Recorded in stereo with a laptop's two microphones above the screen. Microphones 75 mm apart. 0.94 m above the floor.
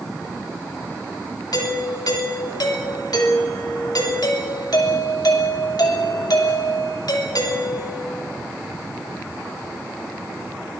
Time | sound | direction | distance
1.5 | a doorbell | 65° left (ahead or behind) | 3 m